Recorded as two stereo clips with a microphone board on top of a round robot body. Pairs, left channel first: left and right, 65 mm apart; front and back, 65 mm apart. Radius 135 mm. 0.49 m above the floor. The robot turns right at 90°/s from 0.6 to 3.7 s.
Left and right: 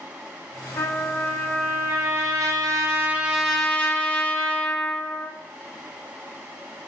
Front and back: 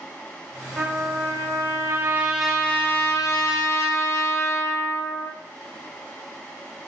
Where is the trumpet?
120° left, 1.0 m; by 5.3 s 25° left, 1.0 m.